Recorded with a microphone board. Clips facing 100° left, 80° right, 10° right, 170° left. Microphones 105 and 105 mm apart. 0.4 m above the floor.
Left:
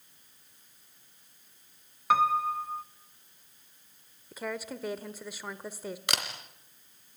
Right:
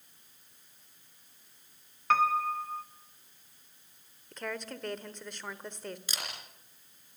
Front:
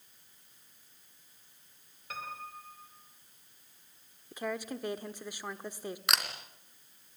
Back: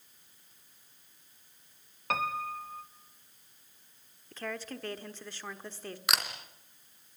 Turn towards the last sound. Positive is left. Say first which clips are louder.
# left 8 dB, back 1 dB
turn(degrees=80)